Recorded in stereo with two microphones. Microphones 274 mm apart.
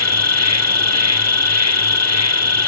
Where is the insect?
75° left (ahead or behind), 1.0 m.